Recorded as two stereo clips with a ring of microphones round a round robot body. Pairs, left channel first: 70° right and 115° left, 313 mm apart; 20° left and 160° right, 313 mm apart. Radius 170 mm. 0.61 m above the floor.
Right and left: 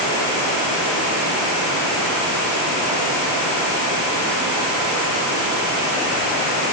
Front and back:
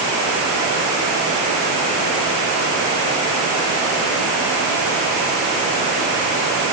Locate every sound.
Only background noise.